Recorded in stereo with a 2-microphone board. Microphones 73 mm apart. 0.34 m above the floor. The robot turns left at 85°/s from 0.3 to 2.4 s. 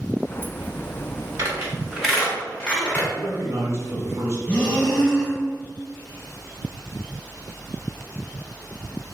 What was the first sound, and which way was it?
A squeak, 45° right (ahead or behind).